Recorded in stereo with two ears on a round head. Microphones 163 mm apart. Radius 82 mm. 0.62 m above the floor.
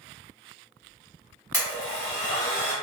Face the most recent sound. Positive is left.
turn(degrees=10)  # may be behind; listen again after turning